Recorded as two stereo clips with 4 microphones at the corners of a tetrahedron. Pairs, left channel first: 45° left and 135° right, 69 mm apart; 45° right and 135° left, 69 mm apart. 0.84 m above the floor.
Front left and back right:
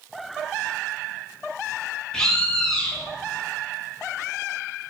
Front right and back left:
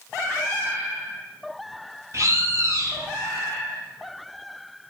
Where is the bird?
120° left, 1.2 m.